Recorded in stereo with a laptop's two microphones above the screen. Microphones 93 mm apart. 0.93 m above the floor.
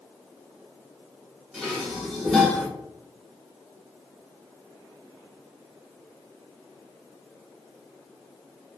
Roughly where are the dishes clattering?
Centre.